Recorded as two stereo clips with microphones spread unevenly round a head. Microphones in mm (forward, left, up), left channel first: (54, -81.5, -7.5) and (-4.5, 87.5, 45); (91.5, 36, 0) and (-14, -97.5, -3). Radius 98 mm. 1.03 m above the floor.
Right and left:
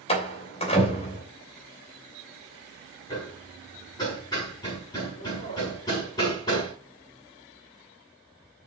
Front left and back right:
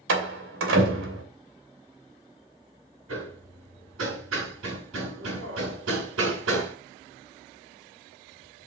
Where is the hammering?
145° right, 7 m.